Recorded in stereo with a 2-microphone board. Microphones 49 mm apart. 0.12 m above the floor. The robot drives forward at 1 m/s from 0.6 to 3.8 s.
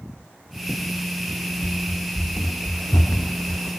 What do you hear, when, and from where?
1.6 s running footsteps: 90° left